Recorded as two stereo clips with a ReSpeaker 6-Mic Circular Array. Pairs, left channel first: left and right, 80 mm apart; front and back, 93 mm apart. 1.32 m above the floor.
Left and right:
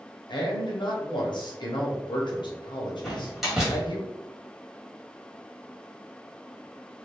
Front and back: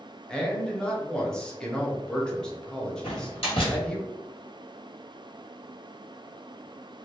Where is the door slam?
Straight ahead, 1.5 m.